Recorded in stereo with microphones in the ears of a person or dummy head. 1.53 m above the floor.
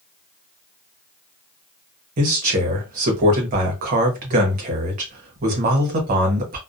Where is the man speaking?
40° right (ahead or behind), 0.9 m.